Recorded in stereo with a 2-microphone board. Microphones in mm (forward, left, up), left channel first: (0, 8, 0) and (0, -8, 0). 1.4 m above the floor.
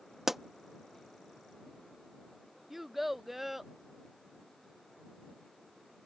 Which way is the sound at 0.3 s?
20° right (ahead or behind).